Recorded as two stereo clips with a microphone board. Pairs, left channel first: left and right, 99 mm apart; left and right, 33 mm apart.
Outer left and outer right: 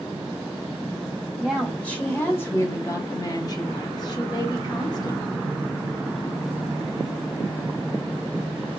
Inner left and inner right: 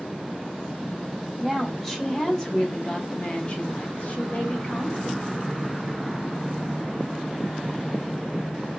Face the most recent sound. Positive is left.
turn(degrees=40)  # may be behind; listen again after turning